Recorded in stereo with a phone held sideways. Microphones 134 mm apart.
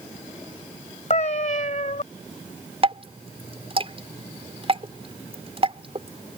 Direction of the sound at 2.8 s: 40° right (ahead or behind).